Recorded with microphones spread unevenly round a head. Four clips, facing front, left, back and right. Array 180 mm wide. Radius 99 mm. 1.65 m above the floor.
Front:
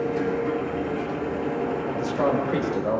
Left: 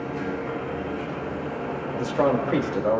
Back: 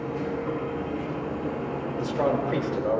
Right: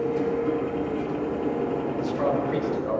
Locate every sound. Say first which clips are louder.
0.0 s a machine running: right 5 dB, front 5 dB; 70° right, 2.5 m
1.9 s a man speaking: left 6 dB, even; 90° left, 2.5 m